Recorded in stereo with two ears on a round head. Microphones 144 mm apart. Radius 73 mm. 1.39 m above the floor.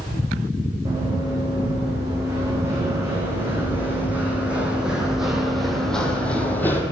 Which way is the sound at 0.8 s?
20° right (ahead or behind).